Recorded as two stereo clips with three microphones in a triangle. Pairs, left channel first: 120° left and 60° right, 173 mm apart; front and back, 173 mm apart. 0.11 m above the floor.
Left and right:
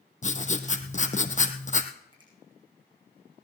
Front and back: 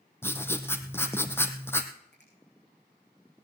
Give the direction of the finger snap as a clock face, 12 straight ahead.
12 o'clock.